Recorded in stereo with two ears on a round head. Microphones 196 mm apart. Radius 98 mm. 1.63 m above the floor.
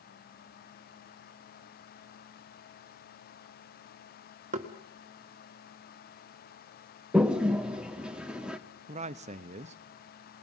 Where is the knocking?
35° right (ahead or behind), 1.5 m.